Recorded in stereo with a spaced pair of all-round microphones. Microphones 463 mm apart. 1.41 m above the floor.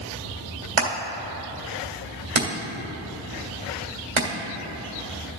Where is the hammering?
75° right (ahead or behind), 1.9 m.